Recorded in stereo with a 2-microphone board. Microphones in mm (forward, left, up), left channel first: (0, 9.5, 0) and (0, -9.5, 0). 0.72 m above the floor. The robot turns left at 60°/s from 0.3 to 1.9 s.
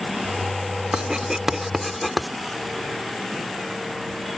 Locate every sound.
0.9 s writing: 55° right (ahead or behind); by 2.3 s 5° right (ahead or behind)